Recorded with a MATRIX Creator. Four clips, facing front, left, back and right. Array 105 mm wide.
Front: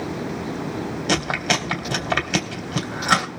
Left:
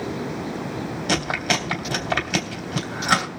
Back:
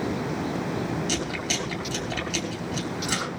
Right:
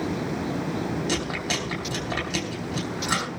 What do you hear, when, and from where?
1.1 s chewing: 25° left, 2.5 m